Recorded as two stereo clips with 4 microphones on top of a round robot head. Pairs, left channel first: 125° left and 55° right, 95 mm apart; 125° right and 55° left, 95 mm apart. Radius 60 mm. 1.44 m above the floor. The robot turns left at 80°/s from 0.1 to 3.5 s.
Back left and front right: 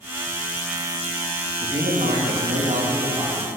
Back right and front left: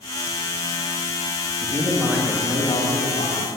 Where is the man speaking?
5° left, 2.0 m; by 3.5 s 140° right, 2.0 m.